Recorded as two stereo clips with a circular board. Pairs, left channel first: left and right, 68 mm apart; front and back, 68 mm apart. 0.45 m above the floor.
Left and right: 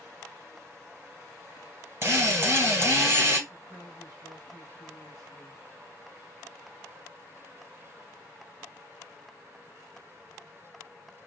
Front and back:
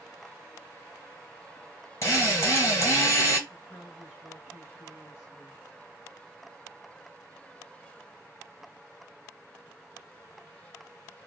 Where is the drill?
45° right, 3 m.